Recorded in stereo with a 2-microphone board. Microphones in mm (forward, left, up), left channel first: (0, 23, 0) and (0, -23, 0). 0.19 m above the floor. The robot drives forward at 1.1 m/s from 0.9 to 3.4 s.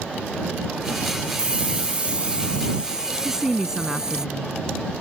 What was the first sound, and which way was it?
A hiss, 30° right (ahead or behind).